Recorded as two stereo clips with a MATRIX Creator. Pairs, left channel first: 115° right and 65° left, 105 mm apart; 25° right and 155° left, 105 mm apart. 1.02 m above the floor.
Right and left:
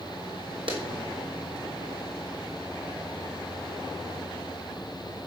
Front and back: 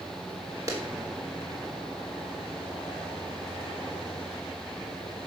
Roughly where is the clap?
Left.